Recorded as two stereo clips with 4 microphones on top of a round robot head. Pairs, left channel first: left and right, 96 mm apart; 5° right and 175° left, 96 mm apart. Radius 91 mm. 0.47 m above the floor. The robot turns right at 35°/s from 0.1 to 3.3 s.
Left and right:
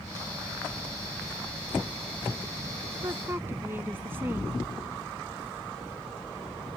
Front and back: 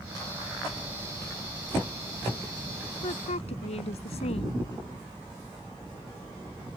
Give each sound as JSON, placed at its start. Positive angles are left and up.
{"t": 3.0, "sound": "a woman speaking", "azimuth_deg": -30}